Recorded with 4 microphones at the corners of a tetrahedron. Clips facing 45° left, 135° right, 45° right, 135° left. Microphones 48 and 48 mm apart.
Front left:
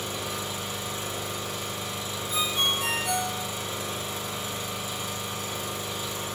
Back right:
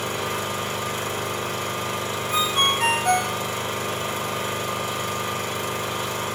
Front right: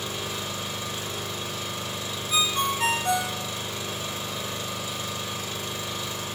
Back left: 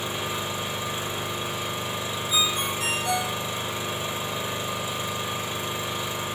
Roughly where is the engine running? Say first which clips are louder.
Back right 6 dB, back left 3 dB; behind.